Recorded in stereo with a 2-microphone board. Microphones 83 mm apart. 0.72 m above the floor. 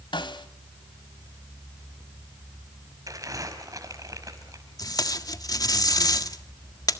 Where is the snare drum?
80° left, 1.5 m.